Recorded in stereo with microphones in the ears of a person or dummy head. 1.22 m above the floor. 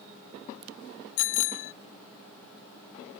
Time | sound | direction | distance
1.2 | a bicycle bell | 85° left | ?